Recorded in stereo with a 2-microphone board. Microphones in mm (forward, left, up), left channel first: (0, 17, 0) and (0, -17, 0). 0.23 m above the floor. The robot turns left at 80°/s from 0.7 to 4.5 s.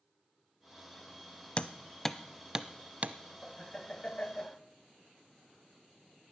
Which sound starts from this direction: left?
Hammering, at 1.6 s.